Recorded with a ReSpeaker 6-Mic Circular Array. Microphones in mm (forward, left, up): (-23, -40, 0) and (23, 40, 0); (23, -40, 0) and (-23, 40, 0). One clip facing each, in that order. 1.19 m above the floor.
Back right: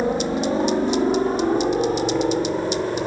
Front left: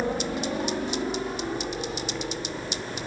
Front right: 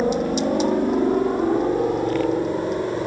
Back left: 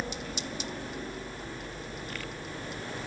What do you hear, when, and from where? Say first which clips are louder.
0.0 s a helicopter: back right 7 dB, front right 17 dB; 55° right; by 3.1 s 80° right